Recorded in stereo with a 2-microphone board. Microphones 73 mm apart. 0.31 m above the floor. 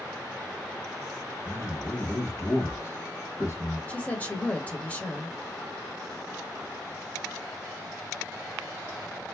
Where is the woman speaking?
20° left (ahead or behind), 1.0 m.